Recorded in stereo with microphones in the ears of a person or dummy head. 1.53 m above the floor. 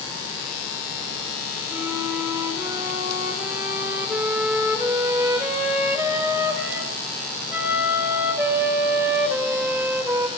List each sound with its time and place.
1.7 s a flute: 15° right (ahead or behind), 0.8 m